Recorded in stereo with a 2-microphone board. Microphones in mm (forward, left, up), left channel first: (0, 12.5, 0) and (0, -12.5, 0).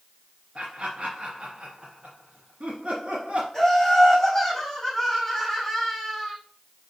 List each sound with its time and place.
0.6 s laughter: 40° right (ahead or behind), 2 m
3.5 s laughter: 10° left (ahead or behind), 5 m